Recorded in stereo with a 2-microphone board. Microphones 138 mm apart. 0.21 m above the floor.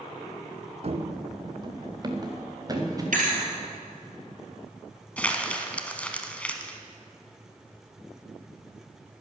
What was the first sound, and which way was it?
Running footsteps, 50° right (ahead or behind).